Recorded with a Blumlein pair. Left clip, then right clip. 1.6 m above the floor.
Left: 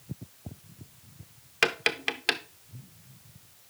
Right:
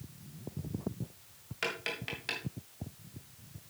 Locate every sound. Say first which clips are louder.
1.6 s tapping: left 10 dB; 30° left, 0.7 m